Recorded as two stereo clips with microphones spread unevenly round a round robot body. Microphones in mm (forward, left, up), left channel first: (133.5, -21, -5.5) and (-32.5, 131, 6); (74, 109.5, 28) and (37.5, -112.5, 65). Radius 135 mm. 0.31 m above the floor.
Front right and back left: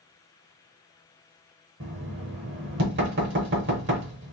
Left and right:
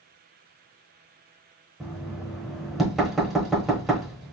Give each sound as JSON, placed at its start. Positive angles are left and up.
{"t": 1.8, "sound": "knocking", "azimuth_deg": 165, "distance_m": 1.0}